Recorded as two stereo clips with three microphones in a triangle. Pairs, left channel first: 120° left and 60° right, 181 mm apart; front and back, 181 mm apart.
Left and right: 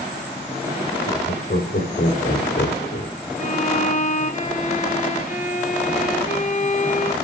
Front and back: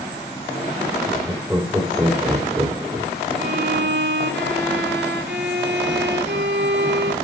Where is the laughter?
105° left, 4.5 m; by 3.1 s 115° left, 1.8 m.